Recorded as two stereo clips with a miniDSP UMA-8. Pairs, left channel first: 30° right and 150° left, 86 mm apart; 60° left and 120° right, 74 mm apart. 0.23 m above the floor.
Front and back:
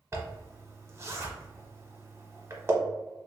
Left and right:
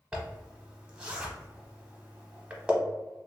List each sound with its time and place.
0.1 s a zipper: 170° left, 0.7 m